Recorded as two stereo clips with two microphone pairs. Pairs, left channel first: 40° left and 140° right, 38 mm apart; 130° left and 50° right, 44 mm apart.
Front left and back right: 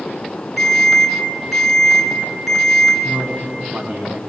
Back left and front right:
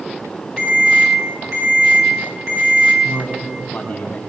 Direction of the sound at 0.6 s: 55° right.